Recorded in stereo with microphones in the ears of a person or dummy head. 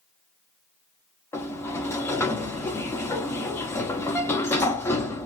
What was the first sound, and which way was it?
A sliding door, 15° left (ahead or behind).